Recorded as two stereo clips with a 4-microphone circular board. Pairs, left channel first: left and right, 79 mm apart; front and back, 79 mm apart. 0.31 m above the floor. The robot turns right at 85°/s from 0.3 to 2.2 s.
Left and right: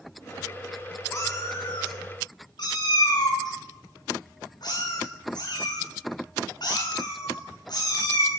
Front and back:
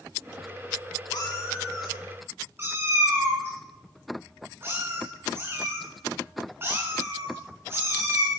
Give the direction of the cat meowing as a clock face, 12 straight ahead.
11 o'clock.